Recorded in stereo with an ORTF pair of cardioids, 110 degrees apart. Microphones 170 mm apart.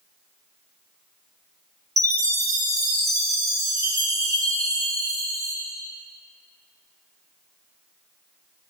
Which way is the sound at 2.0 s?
20° right.